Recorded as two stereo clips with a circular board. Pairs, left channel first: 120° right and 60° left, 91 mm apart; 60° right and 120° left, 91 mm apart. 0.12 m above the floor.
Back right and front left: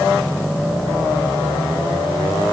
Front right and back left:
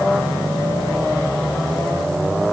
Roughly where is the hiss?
I don't hear a hiss.